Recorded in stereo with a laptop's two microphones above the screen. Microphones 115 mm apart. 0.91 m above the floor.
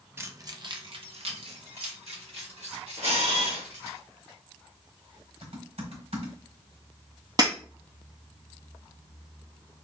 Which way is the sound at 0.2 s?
20° right (ahead or behind).